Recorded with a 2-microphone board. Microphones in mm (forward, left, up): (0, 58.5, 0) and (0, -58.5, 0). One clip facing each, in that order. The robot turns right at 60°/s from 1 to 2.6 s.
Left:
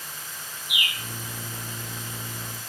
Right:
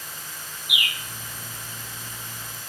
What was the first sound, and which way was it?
A bird, 35° left (ahead or behind).